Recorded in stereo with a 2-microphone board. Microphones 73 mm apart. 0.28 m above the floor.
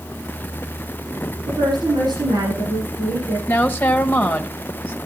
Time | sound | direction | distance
1.5 | a woman speaking | 80° right | 9 m
3.5 | a woman speaking | 25° left (ahead or behind) | 1.5 m